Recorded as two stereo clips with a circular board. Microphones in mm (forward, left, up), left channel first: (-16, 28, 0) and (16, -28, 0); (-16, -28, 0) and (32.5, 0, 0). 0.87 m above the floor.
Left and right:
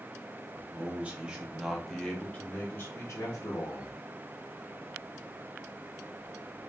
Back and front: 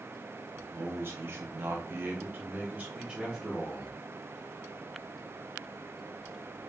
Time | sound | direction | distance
0.5 | a man speaking | 10° right | 1.5 m